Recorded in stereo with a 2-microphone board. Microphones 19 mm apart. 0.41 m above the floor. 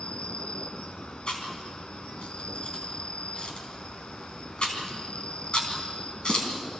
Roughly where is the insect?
Left.